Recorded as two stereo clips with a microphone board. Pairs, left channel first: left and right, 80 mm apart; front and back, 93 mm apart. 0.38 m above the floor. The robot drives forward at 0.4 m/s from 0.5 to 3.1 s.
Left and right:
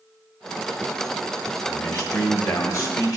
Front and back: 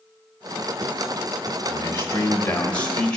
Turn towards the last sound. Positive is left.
turn(degrees=75)